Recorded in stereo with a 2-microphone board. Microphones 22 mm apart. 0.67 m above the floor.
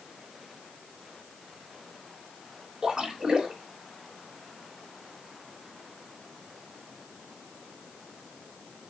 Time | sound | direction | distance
2.8 | a splash | 30° right (ahead or behind) | 3 m